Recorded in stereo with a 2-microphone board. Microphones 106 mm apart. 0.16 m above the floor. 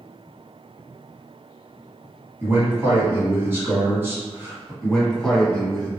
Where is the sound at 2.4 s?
25° right (ahead or behind), 1.2 m.